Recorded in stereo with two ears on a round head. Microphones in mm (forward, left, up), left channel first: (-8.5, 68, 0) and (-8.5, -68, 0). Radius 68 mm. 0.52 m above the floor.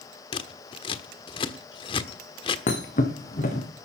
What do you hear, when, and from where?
0.3 s scissors: 35° left (ahead or behind), 1.3 m
2.7 s a thud: 50° left (ahead or behind), 4 m